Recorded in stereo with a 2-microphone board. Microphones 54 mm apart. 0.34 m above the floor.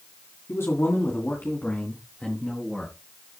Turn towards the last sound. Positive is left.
turn(degrees=15)  # may be behind; listen again after turning